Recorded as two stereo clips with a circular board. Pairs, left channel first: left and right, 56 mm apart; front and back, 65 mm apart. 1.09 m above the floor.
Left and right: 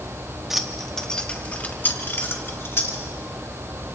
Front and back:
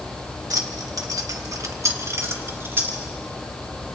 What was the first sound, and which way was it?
Keys jangling, 175° right.